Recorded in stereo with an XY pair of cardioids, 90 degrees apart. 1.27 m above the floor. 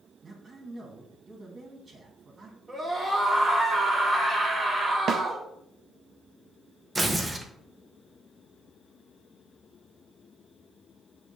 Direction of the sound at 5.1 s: 70° right.